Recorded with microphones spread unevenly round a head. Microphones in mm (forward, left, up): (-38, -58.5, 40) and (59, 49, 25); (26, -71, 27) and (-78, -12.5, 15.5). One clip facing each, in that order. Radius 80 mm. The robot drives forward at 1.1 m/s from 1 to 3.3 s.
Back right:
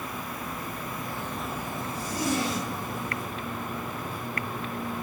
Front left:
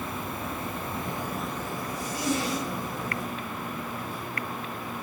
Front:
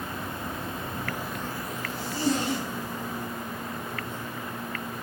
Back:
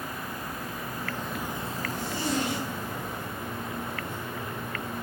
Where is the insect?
5° right, 0.8 m; by 5.0 s straight behind, 2 m.